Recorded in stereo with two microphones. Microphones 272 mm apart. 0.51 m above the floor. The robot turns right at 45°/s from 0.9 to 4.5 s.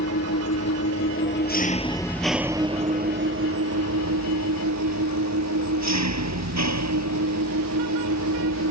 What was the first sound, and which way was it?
An engine running, 120° left.